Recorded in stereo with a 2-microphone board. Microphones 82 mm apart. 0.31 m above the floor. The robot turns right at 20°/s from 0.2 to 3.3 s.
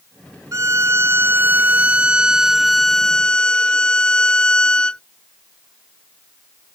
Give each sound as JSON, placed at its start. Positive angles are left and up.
{"t": 0.5, "sound": "a violin", "azimuth_deg": -45}